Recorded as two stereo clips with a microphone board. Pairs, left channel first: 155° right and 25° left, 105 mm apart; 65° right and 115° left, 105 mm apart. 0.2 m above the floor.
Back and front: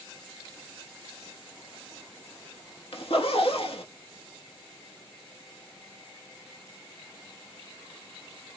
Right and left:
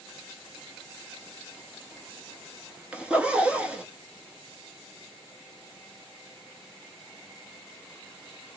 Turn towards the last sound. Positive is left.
turn(degrees=-170)